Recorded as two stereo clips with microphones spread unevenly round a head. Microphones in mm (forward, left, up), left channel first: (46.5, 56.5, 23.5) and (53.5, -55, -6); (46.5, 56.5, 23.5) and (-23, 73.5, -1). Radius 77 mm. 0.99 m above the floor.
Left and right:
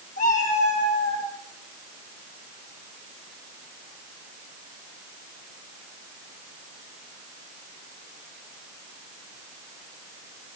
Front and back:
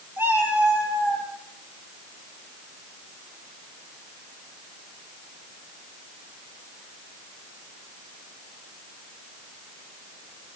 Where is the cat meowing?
105° left, 9 m.